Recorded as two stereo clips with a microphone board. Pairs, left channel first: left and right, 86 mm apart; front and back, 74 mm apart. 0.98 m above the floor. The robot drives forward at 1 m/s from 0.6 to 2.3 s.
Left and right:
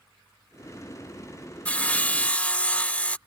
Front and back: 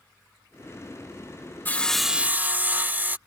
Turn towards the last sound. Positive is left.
turn(degrees=150)